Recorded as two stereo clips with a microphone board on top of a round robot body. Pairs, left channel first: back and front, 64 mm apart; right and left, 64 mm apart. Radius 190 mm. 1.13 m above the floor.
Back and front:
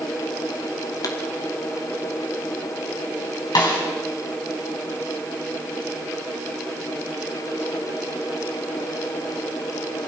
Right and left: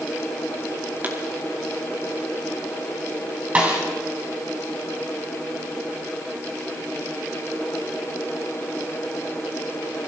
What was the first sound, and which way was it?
A pop, 150° left.